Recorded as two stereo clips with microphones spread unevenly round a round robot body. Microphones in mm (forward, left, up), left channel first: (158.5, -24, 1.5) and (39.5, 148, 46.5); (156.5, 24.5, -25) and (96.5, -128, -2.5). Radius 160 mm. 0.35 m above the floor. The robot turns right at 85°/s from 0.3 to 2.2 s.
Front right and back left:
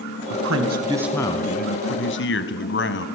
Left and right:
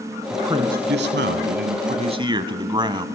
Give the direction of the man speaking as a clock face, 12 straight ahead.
7 o'clock.